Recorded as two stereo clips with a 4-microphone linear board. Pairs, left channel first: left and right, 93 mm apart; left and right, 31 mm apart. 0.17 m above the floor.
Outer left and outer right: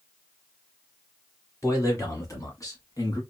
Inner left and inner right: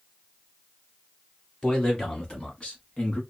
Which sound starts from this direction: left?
A man speaking, at 1.6 s.